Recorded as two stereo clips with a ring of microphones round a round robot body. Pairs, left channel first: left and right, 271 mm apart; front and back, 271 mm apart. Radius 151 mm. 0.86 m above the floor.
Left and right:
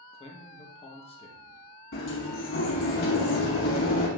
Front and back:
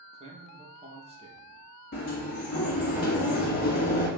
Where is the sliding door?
50° left, 1.4 m.